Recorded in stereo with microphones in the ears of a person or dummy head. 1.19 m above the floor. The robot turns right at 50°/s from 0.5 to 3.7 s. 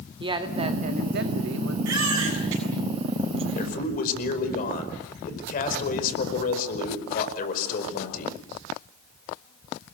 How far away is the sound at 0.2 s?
About 2 m.